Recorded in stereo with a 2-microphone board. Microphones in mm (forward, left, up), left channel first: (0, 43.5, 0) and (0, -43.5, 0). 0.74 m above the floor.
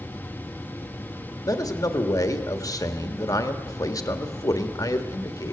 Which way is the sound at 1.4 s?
45° left (ahead or behind).